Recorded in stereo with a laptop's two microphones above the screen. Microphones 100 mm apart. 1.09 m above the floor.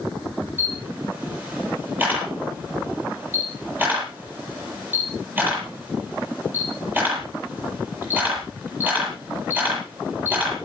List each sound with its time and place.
0.6 s a camera shutter: 20° right (ahead or behind), 8.5 m